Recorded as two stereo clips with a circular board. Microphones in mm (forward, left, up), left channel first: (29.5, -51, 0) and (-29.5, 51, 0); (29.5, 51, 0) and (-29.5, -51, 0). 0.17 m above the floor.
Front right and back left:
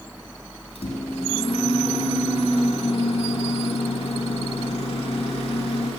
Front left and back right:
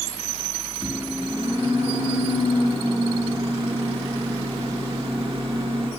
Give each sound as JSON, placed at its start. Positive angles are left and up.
{"t": 0.8, "sound": "a microwave", "azimuth_deg": -85, "distance_m": 2.5}